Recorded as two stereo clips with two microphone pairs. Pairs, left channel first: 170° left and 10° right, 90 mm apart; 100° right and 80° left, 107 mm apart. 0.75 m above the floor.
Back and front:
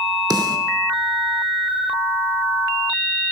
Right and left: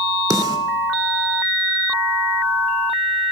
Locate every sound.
0.3 s a snare drum: 30° left, 1.9 m